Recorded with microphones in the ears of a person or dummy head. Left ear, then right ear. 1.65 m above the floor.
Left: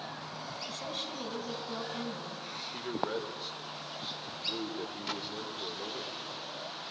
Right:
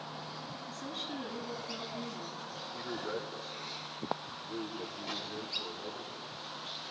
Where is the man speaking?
35° left (ahead or behind), 2 m.